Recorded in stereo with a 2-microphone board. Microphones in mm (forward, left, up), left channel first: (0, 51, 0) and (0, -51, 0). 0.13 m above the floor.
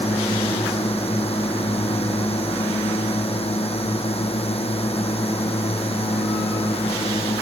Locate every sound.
0.0 s a drone: 65° left (ahead or behind)